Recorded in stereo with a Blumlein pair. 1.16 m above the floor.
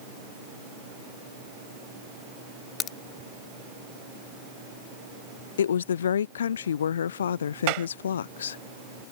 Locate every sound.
2.8 s a crack: 30° left
5.6 s a woman speaking: 65° left
7.7 s a clap: 45° right